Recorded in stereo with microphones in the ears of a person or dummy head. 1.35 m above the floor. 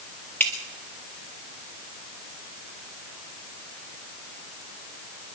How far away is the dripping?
About 1.4 m.